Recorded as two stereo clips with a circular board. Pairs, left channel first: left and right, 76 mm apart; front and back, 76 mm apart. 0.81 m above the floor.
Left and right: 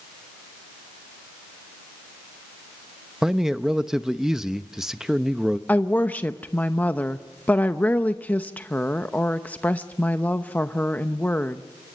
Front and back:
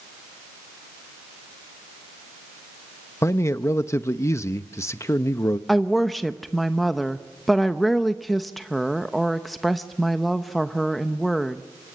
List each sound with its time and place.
3.2 s a man speaking: 10° right, 0.6 m
5.7 s a woman speaking: 90° left, 0.8 m